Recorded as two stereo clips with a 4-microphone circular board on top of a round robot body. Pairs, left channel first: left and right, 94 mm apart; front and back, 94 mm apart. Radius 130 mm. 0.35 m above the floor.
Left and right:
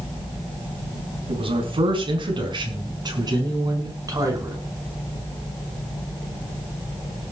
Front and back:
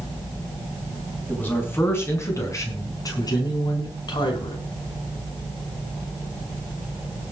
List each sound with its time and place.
1.3 s a man speaking: 70° right, 5 m; by 4.6 s 35° right, 6.5 m